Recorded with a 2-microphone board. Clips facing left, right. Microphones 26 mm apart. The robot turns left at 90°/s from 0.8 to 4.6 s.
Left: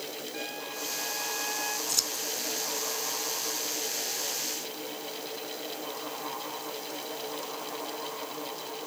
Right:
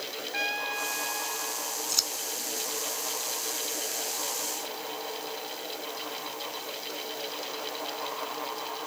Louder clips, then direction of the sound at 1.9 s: Right 5 dB; 10° right (ahead or behind).